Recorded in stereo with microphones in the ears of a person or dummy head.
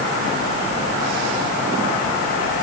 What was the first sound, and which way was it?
Only background noise.